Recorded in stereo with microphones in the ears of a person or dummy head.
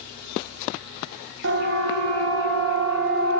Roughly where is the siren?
Right.